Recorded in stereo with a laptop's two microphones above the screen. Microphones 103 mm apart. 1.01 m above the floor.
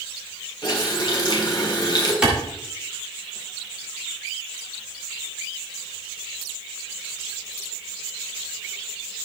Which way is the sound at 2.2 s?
10° right (ahead or behind).